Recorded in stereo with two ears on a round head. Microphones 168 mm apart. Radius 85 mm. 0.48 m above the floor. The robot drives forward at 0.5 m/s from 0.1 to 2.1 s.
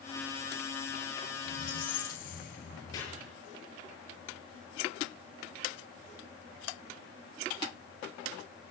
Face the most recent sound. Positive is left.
turn(degrees=20)  # may be behind; listen again after turning